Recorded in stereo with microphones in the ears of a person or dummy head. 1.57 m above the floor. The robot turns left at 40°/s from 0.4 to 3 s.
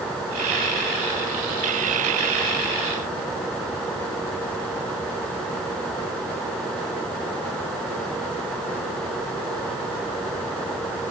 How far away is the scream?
No scream in this recording.